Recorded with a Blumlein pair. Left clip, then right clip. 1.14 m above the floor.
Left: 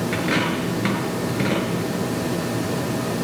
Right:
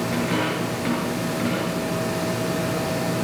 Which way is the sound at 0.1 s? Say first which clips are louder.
Left 3 dB; 70° left.